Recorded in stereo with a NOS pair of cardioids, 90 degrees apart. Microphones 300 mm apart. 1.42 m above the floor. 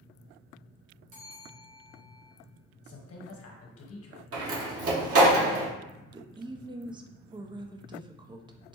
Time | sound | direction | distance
1.1 | a bell | 55° right | 1.8 m
2.8 | a woman speaking | 50° left | 1.2 m
4.3 | a door slam | 50° right | 1.3 m
6.0 | a woman speaking | 15° right | 0.5 m